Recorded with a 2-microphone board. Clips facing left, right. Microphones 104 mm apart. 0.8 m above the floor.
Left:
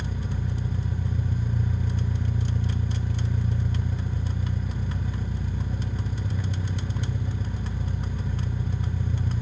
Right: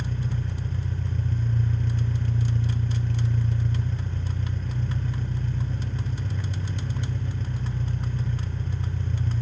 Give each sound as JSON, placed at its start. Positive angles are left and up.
{"t": 0.0, "sound": "an engine running", "side_deg": 10, "distance_m": 0.9}